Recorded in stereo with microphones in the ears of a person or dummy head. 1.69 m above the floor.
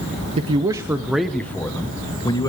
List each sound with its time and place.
0.4 s a man speaking: 35° right (ahead or behind), 0.7 m; by 2.5 s 25° left (ahead or behind), 1.6 m